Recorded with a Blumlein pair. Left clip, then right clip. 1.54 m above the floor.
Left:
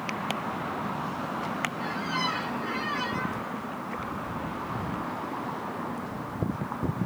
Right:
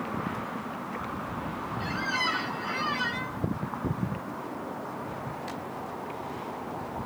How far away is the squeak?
About 2 m.